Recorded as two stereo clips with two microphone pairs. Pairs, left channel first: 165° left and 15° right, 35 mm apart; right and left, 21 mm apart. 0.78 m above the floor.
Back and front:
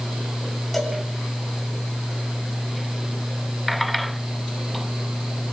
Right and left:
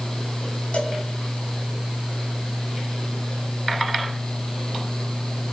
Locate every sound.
0.7 s a cowbell: 105° right, 3.5 m